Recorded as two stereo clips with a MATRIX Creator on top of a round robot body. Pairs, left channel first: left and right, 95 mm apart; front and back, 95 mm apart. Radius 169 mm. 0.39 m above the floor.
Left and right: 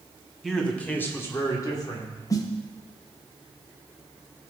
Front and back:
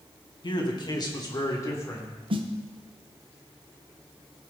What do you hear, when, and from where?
0.4 s a man speaking: 5° left, 2 m; by 2.1 s 60° left, 2.5 m
2.3 s a snare drum: 145° left, 0.6 m